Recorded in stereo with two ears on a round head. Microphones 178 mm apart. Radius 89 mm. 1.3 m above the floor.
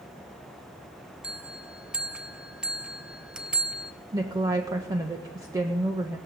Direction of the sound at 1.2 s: 5° right (ahead or behind).